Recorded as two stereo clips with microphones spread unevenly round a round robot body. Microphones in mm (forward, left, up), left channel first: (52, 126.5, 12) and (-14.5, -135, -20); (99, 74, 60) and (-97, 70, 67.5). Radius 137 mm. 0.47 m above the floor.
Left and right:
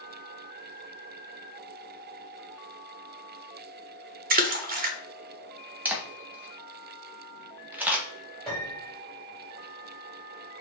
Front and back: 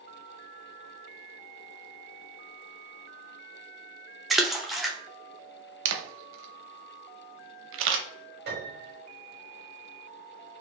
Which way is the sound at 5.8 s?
170° left.